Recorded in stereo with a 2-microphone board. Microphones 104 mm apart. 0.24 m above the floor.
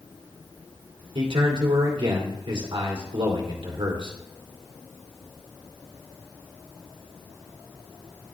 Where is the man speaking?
55° right (ahead or behind), 2 m.